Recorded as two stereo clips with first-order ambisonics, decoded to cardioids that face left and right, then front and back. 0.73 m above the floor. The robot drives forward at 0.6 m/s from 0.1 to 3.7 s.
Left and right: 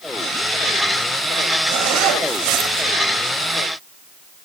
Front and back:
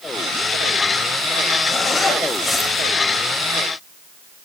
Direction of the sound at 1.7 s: 70° right.